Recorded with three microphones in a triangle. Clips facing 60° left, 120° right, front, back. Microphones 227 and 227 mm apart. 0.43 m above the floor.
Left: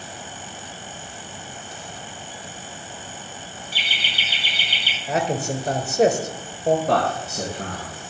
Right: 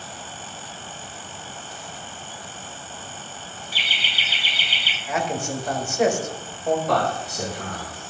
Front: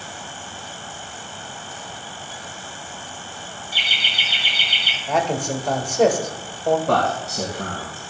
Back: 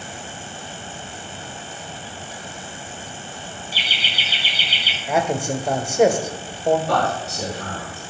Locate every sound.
3.7 s laughter: 25° left, 3 m
5.1 s a man speaking: 100° left, 1.4 m
6.9 s a man speaking: 20° left, 3 m